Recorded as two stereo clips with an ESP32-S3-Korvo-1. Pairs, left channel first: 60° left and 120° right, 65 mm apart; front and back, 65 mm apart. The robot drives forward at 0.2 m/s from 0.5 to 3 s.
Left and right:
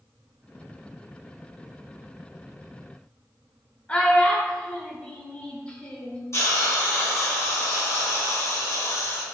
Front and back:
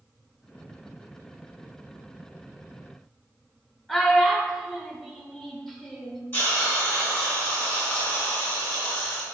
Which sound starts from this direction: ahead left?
A hiss, at 6.3 s.